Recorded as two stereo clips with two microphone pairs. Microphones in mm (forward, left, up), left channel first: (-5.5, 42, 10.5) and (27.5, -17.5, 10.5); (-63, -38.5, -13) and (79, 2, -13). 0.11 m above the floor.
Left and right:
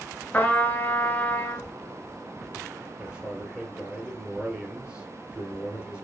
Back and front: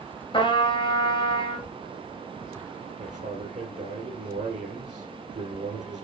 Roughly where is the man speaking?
Ahead.